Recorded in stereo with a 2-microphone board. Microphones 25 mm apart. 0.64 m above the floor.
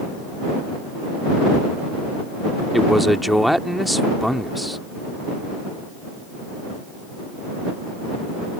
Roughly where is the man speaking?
Centre.